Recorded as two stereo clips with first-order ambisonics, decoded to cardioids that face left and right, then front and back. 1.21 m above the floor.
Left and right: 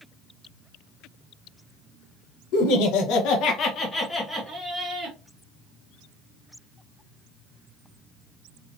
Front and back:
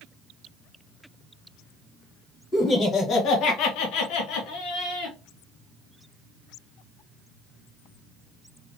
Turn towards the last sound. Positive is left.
turn(degrees=-20)